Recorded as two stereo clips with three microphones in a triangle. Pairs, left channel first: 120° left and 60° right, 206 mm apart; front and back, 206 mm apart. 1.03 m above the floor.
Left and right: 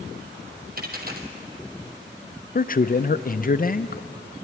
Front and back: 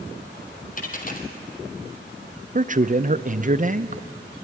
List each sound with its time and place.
0.8 s a dropped coin: 35° right, 1.7 m
2.5 s a man speaking: 145° left, 0.5 m